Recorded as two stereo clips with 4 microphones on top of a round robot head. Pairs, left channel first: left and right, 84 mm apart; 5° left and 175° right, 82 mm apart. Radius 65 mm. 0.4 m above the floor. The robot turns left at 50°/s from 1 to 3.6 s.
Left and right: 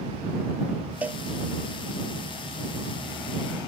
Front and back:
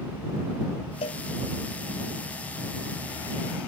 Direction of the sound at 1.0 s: 15° right.